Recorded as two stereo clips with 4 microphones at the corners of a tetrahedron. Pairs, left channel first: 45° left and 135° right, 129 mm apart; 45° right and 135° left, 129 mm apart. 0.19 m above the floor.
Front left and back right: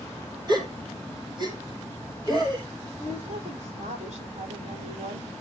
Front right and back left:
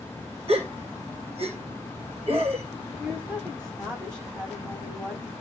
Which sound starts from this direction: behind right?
A woman speaking, at 3.0 s.